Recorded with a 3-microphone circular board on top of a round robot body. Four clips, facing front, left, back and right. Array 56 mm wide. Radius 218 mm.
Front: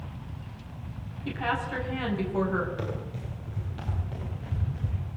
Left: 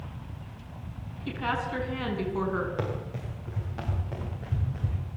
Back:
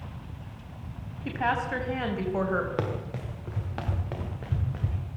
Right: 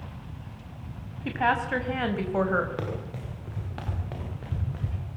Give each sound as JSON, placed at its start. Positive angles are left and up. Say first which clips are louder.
{"t": 1.2, "sound": "a woman speaking", "louder": "right 5 dB, back 2 dB", "azimuth_deg": -110, "distance_m": 6.0}
{"t": 2.8, "sound": "running footsteps", "louder": "left 1 dB, back 3 dB", "azimuth_deg": -170, "distance_m": 7.5}